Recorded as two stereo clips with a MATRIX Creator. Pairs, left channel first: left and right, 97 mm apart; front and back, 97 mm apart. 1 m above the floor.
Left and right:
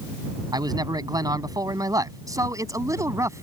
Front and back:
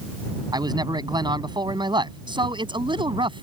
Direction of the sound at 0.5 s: 135° right.